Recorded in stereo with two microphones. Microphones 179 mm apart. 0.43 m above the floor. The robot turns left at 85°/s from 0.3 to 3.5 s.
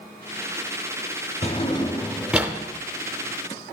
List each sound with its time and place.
1.4 s a drawer: 35° left (ahead or behind), 0.7 m; by 2.5 s 15° right (ahead or behind), 0.7 m